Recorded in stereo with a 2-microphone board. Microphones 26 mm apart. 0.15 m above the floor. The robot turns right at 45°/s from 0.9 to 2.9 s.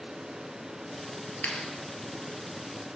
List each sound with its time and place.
1.4 s a clap: 60° left (ahead or behind), 2.5 m; by 1.6 s 65° left (ahead or behind), 2.5 m